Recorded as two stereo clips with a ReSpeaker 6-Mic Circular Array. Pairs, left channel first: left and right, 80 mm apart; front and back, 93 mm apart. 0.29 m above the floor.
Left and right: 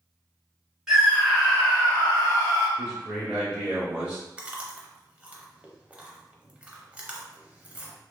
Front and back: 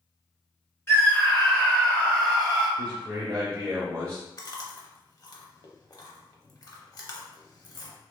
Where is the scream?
10° right, 1.5 m; by 2.7 s 80° left, 1.6 m.